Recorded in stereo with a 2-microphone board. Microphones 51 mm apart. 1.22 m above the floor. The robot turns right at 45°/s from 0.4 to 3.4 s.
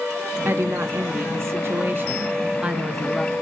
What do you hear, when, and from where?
0.5 s a woman speaking: 120° right, 0.6 m; by 3.3 s 10° left, 0.6 m